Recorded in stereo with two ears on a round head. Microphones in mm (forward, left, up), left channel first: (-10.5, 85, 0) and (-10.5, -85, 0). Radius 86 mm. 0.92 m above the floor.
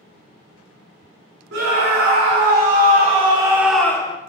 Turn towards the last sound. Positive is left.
turn(degrees=25)  # may be behind; listen again after turning